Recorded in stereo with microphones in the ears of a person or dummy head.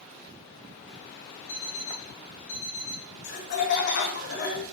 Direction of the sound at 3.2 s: 55° left (ahead or behind).